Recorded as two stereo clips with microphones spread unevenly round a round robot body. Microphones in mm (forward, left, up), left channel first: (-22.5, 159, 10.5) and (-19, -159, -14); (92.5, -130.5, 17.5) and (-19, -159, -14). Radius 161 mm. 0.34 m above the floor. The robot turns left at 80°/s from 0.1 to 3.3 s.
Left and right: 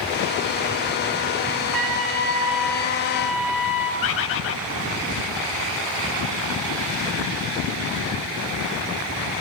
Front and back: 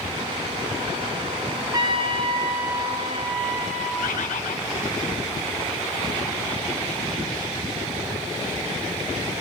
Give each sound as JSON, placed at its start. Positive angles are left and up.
{"t": 1.7, "sound": "a trumpet", "azimuth_deg": -110, "distance_m": 3.0}
{"t": 4.0, "sound": "a bird", "azimuth_deg": 35, "distance_m": 0.8}